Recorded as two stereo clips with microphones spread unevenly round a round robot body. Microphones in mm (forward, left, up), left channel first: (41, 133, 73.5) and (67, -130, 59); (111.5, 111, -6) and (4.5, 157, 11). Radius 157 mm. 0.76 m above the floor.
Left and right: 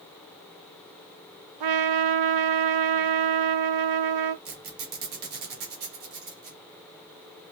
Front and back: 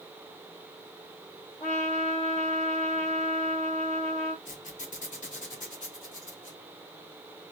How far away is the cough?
No cough in this recording.